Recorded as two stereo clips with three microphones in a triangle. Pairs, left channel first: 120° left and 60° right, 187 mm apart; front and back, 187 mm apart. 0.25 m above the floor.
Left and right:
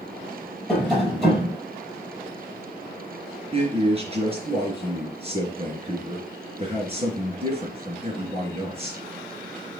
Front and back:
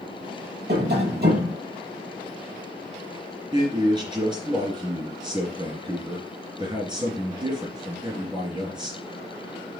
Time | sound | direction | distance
0.7 | tapping | 150° right | 6 m
3.5 | a man speaking | 115° right | 3.5 m